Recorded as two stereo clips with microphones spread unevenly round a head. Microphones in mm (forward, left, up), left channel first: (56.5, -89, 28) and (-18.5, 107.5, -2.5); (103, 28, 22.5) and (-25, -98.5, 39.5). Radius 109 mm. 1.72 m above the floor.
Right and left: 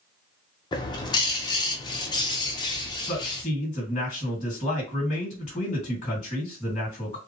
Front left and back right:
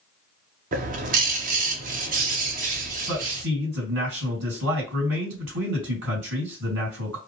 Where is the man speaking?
125° right, 2.5 m.